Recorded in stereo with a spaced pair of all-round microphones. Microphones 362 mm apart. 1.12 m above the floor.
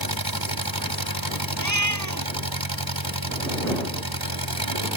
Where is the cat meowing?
50° right (ahead or behind).